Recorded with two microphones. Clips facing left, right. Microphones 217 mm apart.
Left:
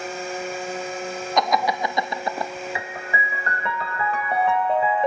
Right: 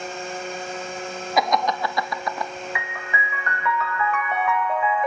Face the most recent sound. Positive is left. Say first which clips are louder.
# left 2 dB
turn(degrees=30)  # may be behind; listen again after turning